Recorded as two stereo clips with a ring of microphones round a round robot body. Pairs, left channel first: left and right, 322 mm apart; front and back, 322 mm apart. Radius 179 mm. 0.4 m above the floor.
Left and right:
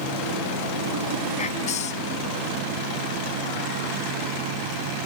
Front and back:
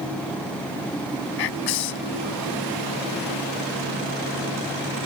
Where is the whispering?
20° left.